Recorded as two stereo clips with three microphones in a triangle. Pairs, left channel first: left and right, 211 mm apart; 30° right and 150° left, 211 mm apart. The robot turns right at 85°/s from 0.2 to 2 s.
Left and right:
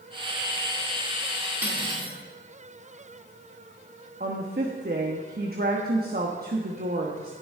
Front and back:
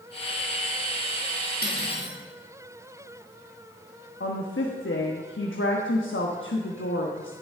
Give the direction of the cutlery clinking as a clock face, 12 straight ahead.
6 o'clock.